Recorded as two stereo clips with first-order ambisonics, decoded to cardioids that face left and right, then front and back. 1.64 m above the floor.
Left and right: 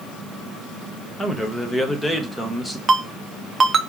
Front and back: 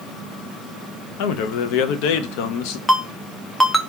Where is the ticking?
I don't hear ticking.